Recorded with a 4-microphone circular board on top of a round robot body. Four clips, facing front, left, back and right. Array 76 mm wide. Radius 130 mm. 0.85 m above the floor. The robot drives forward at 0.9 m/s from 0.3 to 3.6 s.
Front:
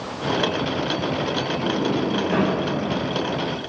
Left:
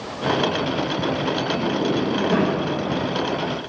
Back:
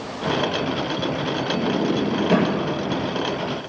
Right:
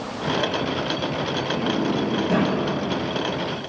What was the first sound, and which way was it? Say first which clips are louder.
A sliding door: left 1 dB, back 2 dB; 160° right.